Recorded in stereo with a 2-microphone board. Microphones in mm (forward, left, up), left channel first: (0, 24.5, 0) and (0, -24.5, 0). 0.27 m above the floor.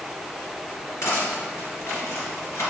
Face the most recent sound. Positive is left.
turn(degrees=65)  # may be behind; listen again after turning